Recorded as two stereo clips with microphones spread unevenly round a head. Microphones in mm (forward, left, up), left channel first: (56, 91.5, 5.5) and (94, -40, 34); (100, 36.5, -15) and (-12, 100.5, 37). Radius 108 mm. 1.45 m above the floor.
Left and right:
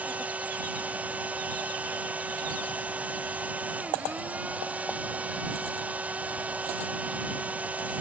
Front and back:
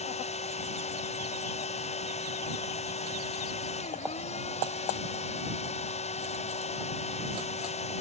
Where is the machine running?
5° left.